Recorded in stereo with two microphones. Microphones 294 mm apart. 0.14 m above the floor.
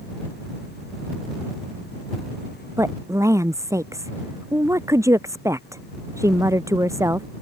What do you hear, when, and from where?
2.8 s a woman speaking: 10° right (ahead or behind)